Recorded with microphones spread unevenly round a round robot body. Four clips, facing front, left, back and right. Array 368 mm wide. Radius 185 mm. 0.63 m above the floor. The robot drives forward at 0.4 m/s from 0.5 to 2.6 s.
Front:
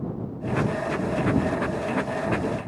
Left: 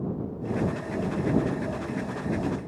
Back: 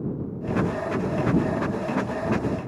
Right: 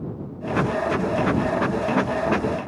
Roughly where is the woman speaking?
No woman speaking in this recording.